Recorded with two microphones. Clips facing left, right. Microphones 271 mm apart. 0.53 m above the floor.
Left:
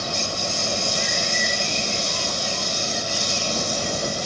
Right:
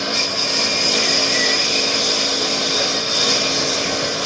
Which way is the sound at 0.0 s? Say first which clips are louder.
Right 4 dB; 75° right (ahead or behind).